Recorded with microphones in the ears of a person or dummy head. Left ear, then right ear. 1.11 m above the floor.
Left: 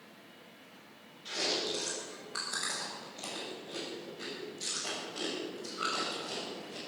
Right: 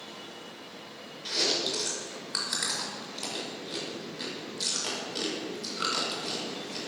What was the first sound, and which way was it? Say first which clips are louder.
Chewing: right 5 dB; 55° right (ahead or behind).